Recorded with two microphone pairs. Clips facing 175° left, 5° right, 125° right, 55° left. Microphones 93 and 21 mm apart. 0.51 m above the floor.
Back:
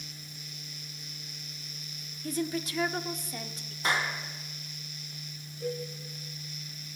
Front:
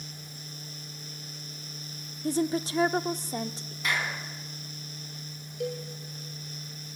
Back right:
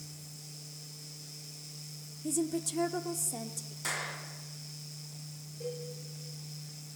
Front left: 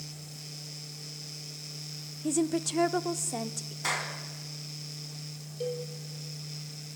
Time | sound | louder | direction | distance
2.2 | a woman speaking | front 5 dB, front left 4 dB | 35° left | 0.7 m
3.8 | a clap | back 1 dB, front left 4 dB | 115° left | 4 m
5.6 | a cowbell | front 1 dB, front left 6 dB | 20° left | 6 m